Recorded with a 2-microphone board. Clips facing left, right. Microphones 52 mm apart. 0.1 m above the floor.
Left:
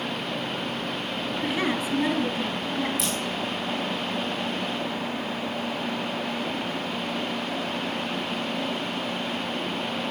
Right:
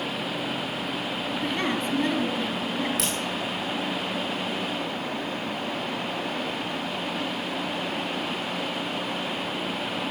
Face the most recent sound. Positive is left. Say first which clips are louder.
# even
turn(degrees=-85)